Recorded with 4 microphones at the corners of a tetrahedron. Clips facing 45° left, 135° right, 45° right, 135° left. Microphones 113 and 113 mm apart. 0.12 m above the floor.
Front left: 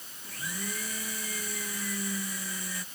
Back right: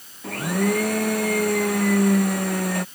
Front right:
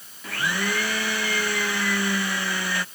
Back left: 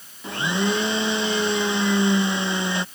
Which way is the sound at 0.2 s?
155° right.